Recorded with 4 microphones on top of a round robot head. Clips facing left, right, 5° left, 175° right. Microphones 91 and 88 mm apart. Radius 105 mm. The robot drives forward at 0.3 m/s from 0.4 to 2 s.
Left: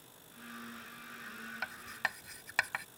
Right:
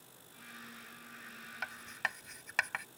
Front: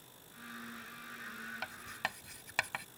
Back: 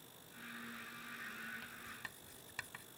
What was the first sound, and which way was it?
Writing, 5° left.